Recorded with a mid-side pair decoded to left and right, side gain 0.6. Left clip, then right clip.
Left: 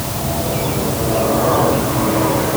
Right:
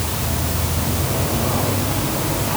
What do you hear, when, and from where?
Only background noise.